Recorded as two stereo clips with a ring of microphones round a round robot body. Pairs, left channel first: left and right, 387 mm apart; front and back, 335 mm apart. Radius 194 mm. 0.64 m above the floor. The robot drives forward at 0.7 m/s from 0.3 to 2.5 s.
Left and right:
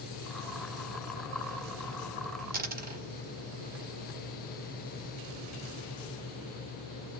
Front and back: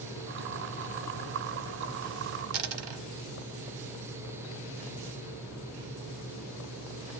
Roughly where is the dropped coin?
Behind.